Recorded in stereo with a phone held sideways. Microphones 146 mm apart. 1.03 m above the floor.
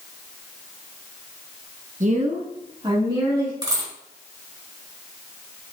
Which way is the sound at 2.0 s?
60° right (ahead or behind).